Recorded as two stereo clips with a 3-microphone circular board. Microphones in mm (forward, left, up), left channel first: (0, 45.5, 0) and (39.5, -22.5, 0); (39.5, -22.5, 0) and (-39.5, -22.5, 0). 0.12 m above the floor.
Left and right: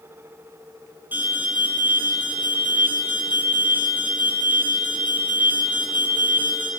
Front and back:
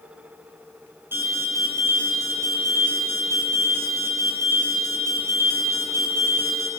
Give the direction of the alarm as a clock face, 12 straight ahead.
4 o'clock.